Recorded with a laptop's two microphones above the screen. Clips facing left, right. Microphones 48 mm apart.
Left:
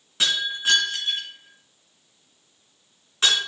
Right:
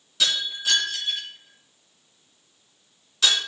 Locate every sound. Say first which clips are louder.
0.2 s breaking glass: left 2 dB; 35° left (ahead or behind), 3 m